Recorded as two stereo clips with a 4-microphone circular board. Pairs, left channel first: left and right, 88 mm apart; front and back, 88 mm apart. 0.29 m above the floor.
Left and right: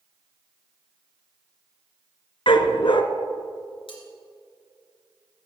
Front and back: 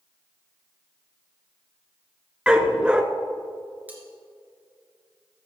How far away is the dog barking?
About 0.8 m.